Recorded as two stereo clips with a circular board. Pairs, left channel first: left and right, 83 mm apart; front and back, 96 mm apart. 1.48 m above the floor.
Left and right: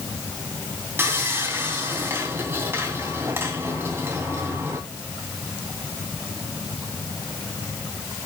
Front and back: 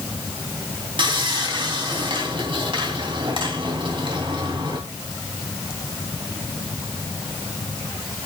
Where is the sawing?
150° right, 3 m.